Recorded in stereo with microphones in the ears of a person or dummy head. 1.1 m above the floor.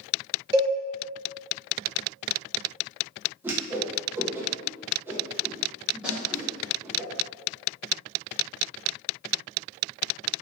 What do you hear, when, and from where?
0.5 s a cowbell: 20° right (ahead or behind), 1.0 m
3.4 s a whoosh: 10° right (ahead or behind), 0.5 m
6.0 s a snare drum: centre (ahead or behind), 1.3 m